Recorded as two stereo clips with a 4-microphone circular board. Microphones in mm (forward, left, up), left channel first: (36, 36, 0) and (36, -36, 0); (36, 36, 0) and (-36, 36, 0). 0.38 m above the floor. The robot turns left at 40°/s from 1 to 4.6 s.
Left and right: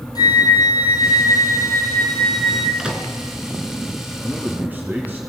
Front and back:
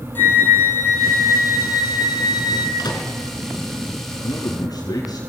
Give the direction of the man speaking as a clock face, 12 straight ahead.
12 o'clock.